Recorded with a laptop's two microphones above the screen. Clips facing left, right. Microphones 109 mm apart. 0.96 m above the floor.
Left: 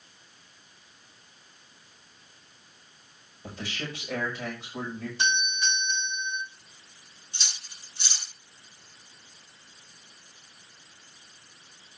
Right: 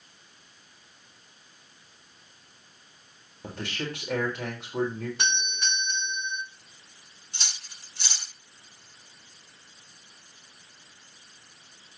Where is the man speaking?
65° right (ahead or behind), 4 m.